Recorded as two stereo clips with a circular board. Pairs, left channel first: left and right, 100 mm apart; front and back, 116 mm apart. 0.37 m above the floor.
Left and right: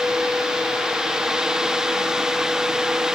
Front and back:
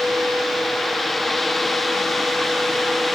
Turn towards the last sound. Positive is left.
No sound to turn to.